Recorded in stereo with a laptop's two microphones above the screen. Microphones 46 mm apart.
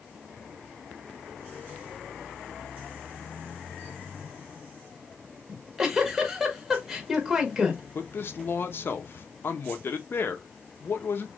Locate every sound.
5.5 s a giggle: 10° right (ahead or behind), 1.2 m
8.0 s a man speaking: 55° left (ahead or behind), 0.9 m